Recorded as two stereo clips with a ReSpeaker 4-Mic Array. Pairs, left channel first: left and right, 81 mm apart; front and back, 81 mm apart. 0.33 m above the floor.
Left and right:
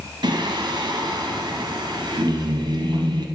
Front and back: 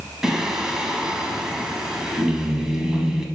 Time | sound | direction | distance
0.2 | singing | 95° right | 1.0 m